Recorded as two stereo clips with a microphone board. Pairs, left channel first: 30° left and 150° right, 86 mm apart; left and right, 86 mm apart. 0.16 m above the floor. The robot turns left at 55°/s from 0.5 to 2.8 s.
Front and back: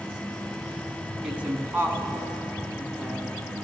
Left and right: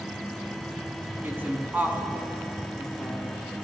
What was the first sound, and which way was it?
A woman speaking, 95° right.